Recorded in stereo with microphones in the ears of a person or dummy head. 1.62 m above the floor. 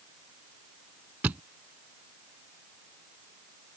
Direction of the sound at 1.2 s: 10° right (ahead or behind).